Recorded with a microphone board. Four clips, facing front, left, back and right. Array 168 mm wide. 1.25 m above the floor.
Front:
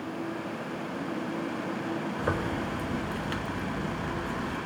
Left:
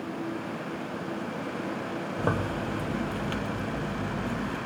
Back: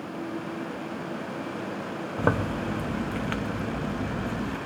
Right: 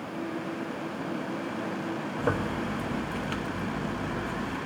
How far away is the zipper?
About 1.1 m.